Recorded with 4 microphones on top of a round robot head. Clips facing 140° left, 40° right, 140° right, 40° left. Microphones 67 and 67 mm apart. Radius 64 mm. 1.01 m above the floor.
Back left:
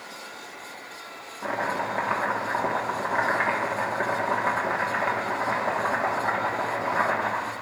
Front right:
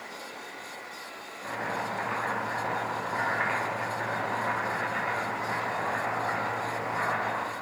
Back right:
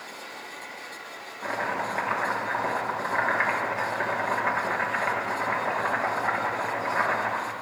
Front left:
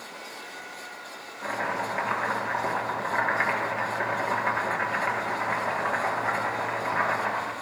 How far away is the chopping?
About 3 m.